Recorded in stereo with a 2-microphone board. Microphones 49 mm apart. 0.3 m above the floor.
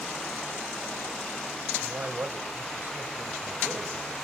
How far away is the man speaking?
About 1.2 m.